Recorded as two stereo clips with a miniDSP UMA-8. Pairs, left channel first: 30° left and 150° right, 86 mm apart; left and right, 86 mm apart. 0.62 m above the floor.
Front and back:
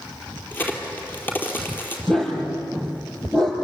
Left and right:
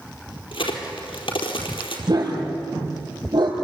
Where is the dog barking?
50° right, 6 m.